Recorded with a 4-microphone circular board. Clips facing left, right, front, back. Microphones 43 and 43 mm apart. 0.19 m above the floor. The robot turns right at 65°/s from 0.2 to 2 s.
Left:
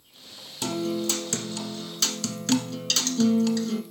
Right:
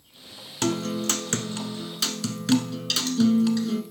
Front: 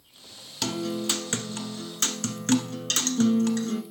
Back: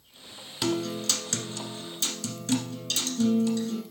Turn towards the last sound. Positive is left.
turn(degrees=-10)